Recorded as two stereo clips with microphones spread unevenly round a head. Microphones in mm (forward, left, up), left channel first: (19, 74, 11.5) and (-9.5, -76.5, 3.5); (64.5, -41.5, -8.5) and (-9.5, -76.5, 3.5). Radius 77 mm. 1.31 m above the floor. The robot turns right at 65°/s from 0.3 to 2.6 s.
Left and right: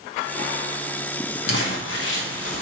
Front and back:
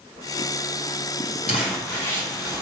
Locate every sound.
1.5 s crumpling: 60° left, 1.8 m; by 2.6 s 135° left, 1.8 m